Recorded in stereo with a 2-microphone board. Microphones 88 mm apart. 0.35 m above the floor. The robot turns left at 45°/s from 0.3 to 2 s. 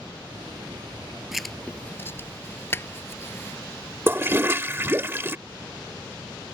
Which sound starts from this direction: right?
A toilet flushing, at 4.1 s.